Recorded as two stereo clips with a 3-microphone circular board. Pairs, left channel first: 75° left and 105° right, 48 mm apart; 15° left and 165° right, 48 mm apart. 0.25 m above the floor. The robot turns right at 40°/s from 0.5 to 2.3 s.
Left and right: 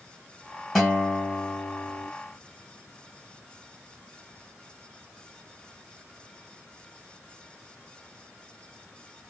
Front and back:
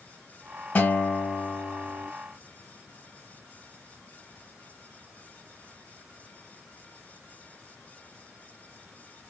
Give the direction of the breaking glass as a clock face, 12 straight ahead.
No breaking glass in this recording.